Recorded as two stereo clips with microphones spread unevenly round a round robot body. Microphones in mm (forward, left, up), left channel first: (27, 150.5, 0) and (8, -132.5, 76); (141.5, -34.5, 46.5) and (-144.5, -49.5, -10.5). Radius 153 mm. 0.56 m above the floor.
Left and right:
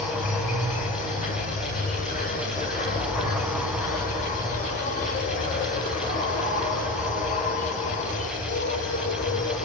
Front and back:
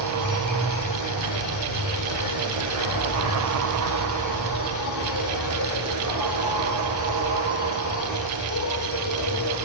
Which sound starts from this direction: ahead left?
An insect, at 0.0 s.